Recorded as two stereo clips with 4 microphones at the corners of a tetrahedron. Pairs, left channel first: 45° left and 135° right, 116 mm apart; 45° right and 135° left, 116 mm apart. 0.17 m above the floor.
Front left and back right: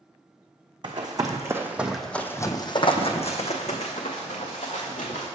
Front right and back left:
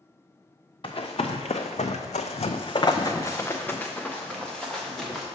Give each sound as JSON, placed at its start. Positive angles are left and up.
{"t": 0.8, "sound": "running footsteps", "azimuth_deg": -85, "distance_m": 0.9}